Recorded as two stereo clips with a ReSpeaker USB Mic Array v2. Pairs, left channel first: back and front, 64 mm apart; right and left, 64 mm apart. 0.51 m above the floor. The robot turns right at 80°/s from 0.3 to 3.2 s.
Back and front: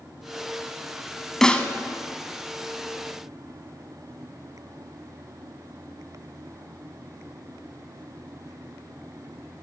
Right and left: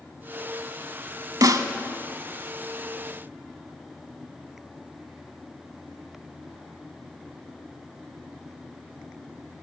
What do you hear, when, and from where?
1.4 s a snare drum: 95° left, 0.6 m; by 1.7 s 115° left, 0.6 m